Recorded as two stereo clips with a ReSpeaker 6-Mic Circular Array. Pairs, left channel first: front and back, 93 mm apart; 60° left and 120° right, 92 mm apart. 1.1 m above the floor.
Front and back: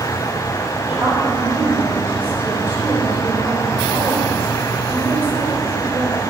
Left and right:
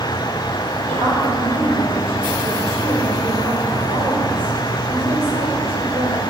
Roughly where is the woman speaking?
Behind right.